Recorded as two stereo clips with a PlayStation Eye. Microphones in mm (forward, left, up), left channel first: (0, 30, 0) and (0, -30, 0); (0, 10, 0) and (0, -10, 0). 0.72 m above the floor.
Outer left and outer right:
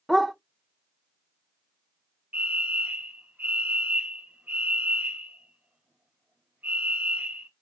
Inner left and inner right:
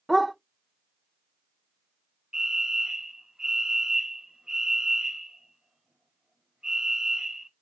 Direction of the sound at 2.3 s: 25° right (ahead or behind).